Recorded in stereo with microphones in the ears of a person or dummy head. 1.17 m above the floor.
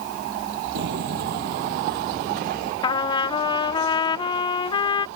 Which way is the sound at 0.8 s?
60° right (ahead or behind).